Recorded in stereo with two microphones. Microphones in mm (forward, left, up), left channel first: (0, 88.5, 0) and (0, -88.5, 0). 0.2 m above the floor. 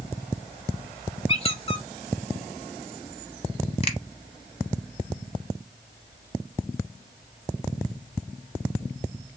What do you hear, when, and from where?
1.3 s a squeak: 35° left (ahead or behind), 0.7 m
3.8 s a finger snap: 35° left (ahead or behind), 0.9 m